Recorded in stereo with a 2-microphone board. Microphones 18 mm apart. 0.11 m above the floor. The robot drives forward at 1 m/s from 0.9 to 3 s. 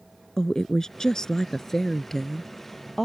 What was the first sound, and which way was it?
A woman speaking, 30° left (ahead or behind).